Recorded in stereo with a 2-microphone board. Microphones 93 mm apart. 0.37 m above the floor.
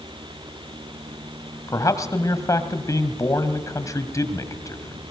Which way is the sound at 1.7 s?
35° left (ahead or behind).